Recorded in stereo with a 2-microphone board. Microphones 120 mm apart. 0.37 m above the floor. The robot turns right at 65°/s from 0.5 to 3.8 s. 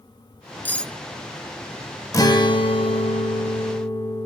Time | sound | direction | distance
0.7 | cutlery clinking | 15° left (ahead or behind) | 0.6 m
2.1 | a guitar | 40° left | 0.7 m